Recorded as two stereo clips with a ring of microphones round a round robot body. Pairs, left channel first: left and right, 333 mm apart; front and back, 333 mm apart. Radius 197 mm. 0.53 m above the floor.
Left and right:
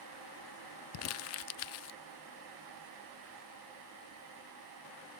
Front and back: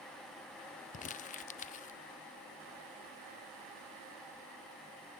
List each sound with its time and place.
0.9 s crumpling: 60° left, 0.5 m